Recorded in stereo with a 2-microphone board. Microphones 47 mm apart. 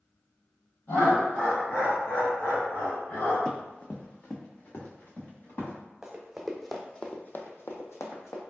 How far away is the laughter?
About 1.8 m.